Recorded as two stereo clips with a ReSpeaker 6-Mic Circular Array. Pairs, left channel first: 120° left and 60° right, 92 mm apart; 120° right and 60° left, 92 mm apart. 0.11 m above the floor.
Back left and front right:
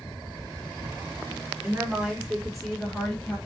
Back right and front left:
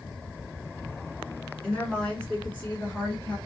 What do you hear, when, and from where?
1.6 s a woman speaking: 55° right, 1.6 m; by 3.4 s 175° left, 1.8 m